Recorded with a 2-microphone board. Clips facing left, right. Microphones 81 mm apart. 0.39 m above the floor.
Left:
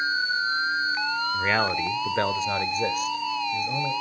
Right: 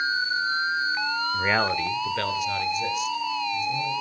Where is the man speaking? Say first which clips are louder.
Right 1 dB; 10° right (ahead or behind), 0.8 m; by 3.9 s 60° left (ahead or behind), 1.8 m.